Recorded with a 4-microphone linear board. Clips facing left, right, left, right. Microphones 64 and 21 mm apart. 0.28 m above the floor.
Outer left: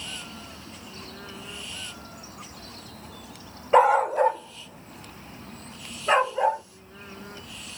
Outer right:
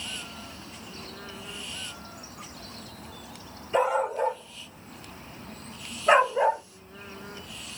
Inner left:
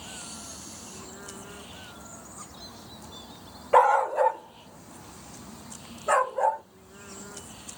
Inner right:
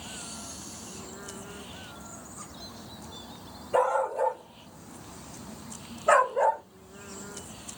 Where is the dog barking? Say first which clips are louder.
Outer left 7 dB, inner left 5 dB; 70° left (ahead or behind), 0.7 m; by 6.6 s 20° right (ahead or behind), 1.3 m.